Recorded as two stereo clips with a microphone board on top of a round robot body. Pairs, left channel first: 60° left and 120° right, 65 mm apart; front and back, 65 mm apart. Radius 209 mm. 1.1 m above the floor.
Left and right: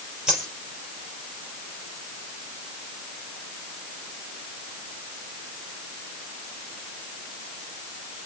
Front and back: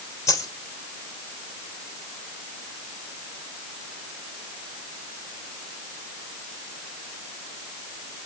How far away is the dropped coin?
About 4 m.